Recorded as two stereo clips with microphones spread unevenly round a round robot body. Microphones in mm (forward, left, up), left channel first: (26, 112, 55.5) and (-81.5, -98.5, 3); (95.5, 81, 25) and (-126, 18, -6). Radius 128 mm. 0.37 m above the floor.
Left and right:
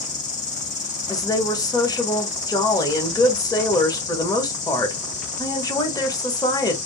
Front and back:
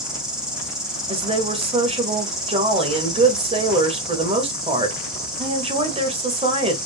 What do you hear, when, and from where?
0.0 s an insect: 120° left, 1.9 m
1.1 s a woman speaking: 145° left, 1.2 m